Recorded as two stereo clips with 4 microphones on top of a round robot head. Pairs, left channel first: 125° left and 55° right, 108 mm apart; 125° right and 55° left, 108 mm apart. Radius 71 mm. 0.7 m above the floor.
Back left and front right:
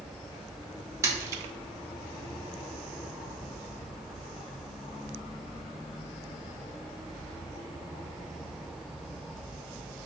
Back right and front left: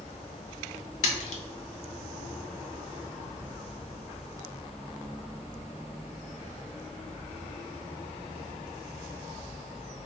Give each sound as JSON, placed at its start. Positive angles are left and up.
{"t": 1.0, "sound": "a splash", "azimuth_deg": -115, "distance_m": 0.6}